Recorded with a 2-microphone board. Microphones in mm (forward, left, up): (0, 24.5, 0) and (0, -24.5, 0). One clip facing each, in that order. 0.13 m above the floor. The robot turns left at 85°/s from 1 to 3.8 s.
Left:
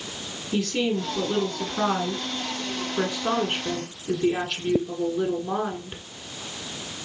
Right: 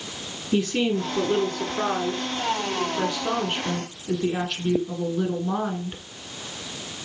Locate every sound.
0.5 s a woman speaking: 25° right (ahead or behind), 1.3 m; by 6.0 s centre (ahead or behind), 1.3 m